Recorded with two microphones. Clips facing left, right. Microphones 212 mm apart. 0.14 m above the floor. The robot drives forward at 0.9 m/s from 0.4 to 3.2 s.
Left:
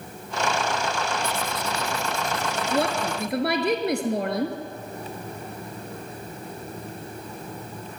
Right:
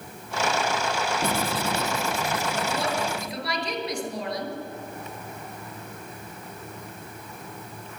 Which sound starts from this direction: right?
Writing, at 1.2 s.